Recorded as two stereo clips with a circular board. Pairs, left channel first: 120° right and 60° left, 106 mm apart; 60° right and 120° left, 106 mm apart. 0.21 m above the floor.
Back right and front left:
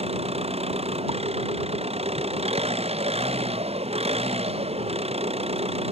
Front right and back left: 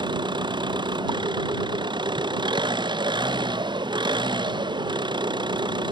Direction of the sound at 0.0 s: 75° left.